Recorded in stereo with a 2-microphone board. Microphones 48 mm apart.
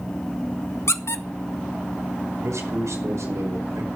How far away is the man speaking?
About 5 m.